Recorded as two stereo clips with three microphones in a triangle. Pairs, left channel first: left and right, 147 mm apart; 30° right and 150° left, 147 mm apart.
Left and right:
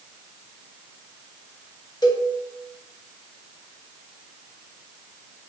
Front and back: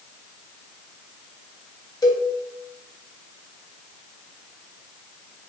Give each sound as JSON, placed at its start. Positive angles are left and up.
{"t": 2.0, "sound": "a cowbell", "azimuth_deg": 30, "distance_m": 0.5}